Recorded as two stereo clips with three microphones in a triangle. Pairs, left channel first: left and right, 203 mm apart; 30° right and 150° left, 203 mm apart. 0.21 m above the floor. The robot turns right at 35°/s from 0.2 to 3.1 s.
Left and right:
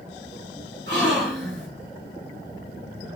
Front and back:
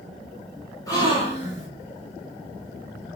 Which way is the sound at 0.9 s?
100° right.